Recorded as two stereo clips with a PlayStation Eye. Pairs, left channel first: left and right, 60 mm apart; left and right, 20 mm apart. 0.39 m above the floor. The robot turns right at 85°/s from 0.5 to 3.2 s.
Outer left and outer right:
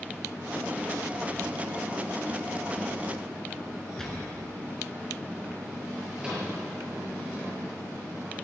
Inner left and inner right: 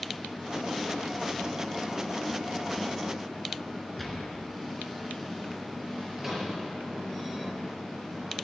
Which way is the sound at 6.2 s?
15° right (ahead or behind).